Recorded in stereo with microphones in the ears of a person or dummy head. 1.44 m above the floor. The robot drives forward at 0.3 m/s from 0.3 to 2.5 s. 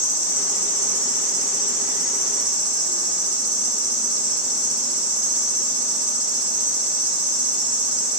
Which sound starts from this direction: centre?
An insect, at 0.0 s.